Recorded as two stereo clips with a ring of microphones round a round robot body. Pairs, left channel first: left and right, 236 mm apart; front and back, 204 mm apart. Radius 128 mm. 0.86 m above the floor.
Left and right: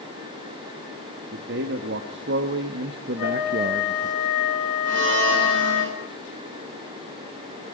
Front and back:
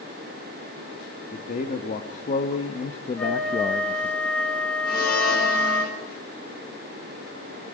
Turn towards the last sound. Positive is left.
turn(degrees=-50)